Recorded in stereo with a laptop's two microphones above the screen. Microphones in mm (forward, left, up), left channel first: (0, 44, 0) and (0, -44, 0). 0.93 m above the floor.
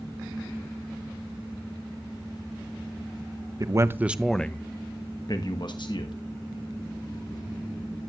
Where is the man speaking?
40° right (ahead or behind), 0.6 m; by 6.1 s 65° left (ahead or behind), 1.3 m.